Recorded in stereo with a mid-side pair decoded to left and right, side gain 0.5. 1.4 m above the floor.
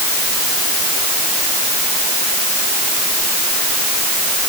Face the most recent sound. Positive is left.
No sound to turn to.